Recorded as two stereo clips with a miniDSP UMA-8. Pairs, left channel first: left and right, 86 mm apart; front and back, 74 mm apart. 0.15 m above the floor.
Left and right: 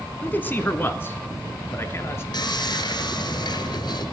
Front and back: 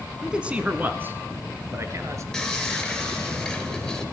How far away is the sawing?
About 3 m.